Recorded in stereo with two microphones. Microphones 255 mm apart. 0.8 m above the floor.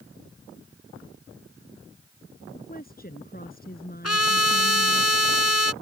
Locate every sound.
2.5 s a woman speaking: 35° left (ahead or behind)
4.0 s a trumpet: 70° left (ahead or behind)